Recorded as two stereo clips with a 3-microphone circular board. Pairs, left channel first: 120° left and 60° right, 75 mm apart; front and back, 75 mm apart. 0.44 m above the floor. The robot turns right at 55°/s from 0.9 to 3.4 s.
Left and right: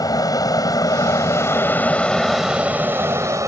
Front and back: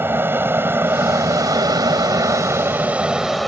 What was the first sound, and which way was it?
An aircraft, 125° left.